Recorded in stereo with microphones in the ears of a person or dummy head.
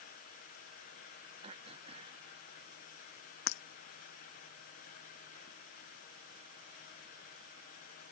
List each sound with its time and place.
1.4 s throat clearing: 30° right (ahead or behind)
3.5 s breaking glass: 65° left (ahead or behind)